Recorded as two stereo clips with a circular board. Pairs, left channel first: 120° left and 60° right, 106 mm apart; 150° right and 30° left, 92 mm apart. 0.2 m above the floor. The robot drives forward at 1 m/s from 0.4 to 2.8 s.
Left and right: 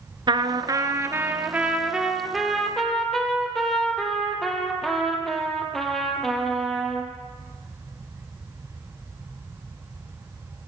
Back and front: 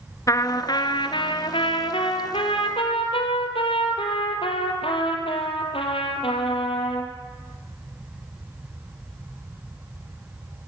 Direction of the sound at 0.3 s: 100° right.